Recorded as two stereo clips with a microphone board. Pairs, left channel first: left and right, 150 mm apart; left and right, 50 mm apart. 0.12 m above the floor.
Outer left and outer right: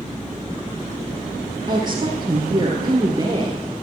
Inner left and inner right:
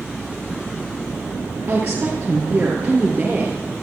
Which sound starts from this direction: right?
A woman speaking, at 1.7 s.